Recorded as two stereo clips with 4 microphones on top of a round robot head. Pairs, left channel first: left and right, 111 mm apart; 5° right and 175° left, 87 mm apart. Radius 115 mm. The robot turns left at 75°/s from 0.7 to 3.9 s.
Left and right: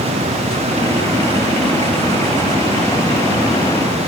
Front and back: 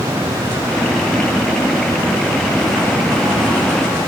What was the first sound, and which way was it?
Only background noise.